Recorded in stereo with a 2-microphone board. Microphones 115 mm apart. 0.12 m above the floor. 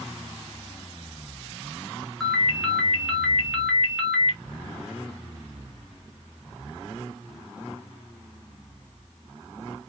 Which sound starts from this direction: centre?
A ringtone, at 2.2 s.